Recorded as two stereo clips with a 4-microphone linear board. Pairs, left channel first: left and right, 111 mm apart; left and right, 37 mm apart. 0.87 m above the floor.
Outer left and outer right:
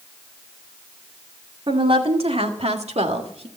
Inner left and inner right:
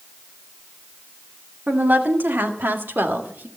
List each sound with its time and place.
1.7 s a woman speaking: 50° right (ahead or behind), 2 m; by 3.5 s 65° right (ahead or behind), 1.5 m